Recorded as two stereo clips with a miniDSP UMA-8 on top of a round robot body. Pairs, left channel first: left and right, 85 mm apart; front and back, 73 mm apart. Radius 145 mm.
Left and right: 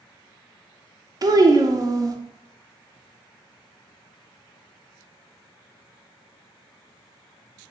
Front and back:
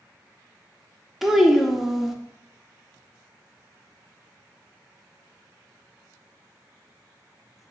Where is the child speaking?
95° right, 0.6 m.